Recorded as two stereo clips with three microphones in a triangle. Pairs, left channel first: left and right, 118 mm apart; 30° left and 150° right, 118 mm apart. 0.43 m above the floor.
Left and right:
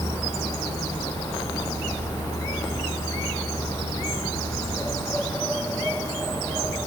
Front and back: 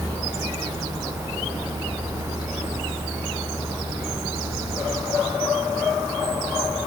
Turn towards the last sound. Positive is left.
No sound to turn to.